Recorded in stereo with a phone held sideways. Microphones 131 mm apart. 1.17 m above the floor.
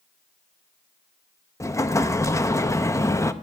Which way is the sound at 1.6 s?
25° left (ahead or behind).